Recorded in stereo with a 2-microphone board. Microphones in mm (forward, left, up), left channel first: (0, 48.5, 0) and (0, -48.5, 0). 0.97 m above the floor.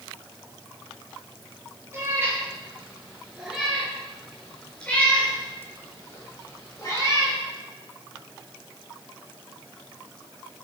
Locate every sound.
1.9 s a cat meowing: 25° right (ahead or behind), 5 m; by 7.4 s 40° left (ahead or behind), 6 m